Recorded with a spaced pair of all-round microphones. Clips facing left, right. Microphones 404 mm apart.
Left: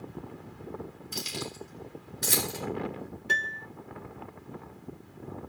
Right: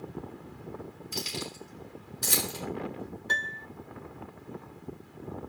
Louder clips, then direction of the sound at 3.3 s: Left 1 dB; 45° left (ahead or behind).